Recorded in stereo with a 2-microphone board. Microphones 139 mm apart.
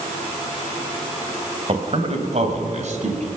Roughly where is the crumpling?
No crumpling in this recording.